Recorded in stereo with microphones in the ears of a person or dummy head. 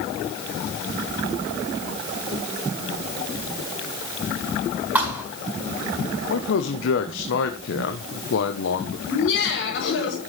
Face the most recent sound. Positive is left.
turn(degrees=80)